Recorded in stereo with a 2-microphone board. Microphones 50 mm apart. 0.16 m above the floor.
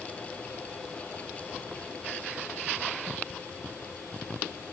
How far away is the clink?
I don't hear a clink.